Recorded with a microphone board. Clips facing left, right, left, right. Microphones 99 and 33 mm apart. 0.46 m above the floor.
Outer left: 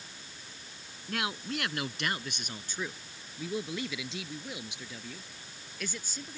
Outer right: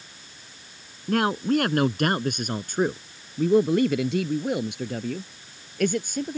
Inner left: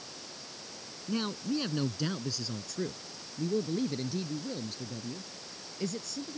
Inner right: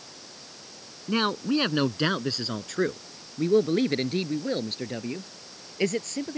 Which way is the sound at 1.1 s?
50° right (ahead or behind).